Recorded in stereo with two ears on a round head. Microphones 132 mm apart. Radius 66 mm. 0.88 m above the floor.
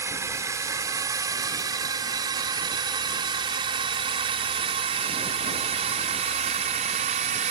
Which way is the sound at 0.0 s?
20° right (ahead or behind).